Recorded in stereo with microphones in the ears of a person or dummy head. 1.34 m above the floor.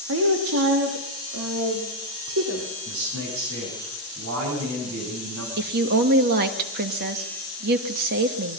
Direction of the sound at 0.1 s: 75° right (ahead or behind).